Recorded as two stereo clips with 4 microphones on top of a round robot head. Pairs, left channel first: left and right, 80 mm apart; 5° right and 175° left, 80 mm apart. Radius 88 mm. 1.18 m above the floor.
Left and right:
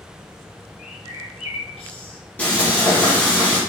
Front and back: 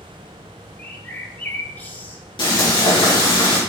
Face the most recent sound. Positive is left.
turn(degrees=15)